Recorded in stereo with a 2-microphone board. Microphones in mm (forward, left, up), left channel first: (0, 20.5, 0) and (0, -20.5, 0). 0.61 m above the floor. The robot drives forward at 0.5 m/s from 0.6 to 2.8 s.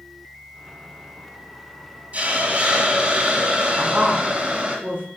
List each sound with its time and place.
2.1 s a hiss: 35° right (ahead or behind), 1.0 m; by 4.8 s 30° right (ahead or behind), 1.3 m
3.8 s a woman speaking: 50° right (ahead or behind), 1.6 m